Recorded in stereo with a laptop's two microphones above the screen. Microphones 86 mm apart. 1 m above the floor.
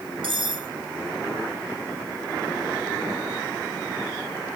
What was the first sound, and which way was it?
Cutlery clinking, 75° right (ahead or behind).